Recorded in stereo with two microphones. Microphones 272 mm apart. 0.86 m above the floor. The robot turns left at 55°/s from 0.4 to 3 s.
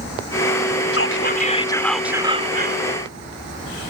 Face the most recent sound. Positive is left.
turn(degrees=-55)